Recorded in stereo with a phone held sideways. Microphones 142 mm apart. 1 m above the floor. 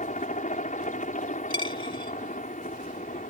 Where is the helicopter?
60° left (ahead or behind).